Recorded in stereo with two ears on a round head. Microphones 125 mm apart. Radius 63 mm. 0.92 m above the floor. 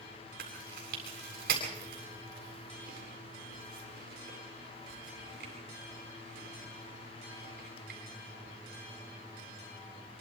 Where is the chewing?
75° right (ahead or behind), 8 m.